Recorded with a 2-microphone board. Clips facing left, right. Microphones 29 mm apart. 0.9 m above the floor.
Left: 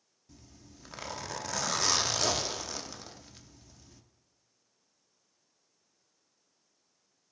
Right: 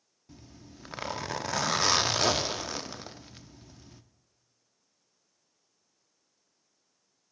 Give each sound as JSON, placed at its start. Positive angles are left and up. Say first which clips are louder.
{"t": 0.3, "sound": "a zipper", "louder": "right 5 dB", "side_deg": -25, "distance_m": 0.6}